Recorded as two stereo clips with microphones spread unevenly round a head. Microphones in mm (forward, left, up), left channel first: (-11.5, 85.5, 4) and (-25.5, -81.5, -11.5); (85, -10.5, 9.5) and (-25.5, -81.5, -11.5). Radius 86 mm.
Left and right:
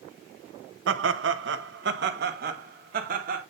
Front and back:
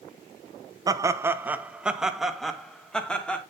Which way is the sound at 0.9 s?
85° right.